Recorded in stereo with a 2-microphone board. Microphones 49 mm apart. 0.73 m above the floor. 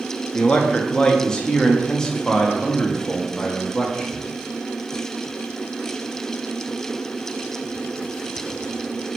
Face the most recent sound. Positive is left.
turn(degrees=15)  # may be behind; listen again after turning